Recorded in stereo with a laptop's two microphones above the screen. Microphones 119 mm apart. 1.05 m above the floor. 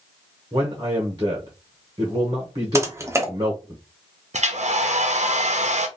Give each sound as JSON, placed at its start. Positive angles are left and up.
{"t": 0.5, "sound": "a man speaking", "side_deg": -35, "distance_m": 0.8}
{"t": 2.8, "sound": "typing on a keyboard", "side_deg": -25, "distance_m": 0.6}
{"t": 4.3, "sound": "a hair dryer", "side_deg": -75, "distance_m": 0.6}